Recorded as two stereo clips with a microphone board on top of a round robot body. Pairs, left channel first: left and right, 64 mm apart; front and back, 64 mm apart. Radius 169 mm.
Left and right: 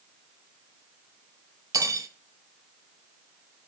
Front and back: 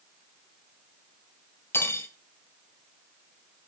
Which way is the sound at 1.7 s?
55° right.